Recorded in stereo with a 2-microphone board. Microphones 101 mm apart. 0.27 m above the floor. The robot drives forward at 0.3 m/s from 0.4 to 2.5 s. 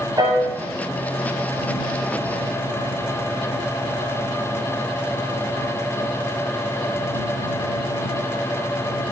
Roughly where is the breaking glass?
I don't hear breaking glass.